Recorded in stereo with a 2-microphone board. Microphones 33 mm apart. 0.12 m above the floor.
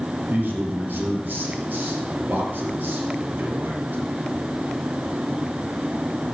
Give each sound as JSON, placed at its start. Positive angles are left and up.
{"t": 0.3, "sound": "a man speaking", "side_deg": -60, "distance_m": 3.0}